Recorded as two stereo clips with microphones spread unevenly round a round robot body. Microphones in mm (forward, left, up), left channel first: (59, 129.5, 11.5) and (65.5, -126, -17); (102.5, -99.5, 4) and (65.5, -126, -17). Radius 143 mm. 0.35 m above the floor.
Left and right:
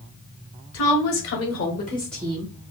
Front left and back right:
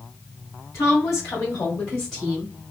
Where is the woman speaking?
85° left, 2 m; by 2.5 s 125° right, 1.2 m.